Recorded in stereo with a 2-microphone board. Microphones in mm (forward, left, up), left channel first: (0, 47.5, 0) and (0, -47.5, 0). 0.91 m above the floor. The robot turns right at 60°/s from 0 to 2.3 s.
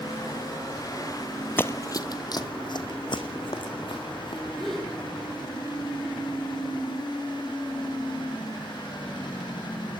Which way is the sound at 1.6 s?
20° left (ahead or behind).